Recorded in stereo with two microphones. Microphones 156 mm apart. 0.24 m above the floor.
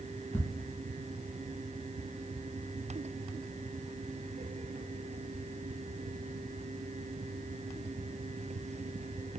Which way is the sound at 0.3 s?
25° left (ahead or behind).